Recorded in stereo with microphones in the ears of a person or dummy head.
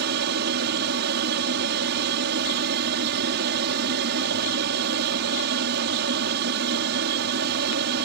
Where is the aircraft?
50° right (ahead or behind).